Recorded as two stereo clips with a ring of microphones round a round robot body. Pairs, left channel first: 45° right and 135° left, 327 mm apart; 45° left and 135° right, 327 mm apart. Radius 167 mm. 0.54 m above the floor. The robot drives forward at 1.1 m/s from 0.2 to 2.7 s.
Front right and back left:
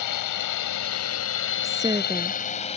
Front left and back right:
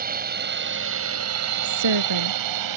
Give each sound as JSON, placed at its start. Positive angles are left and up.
{"t": 0.0, "sound": "a drone", "azimuth_deg": -70}
{"t": 1.6, "sound": "a woman speaking", "azimuth_deg": -145}